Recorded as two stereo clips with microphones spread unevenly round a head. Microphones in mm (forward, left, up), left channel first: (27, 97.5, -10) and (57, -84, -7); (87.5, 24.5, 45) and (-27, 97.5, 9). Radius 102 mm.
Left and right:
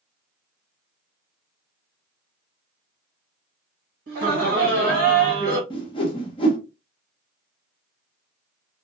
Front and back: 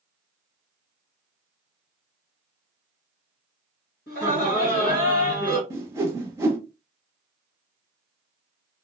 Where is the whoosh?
65° left, 0.7 m.